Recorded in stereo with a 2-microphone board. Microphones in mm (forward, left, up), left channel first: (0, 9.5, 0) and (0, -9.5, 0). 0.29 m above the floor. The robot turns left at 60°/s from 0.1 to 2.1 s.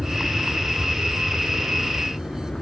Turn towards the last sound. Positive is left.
turn(degrees=55)  # may be behind; listen again after turning